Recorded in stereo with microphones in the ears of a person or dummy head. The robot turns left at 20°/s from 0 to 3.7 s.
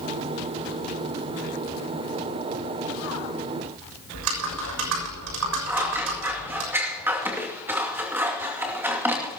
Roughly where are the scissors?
Centre.